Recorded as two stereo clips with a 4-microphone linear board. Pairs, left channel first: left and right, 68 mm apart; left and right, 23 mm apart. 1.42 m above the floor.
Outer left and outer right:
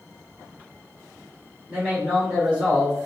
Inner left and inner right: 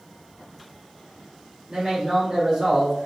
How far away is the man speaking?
About 2.5 m.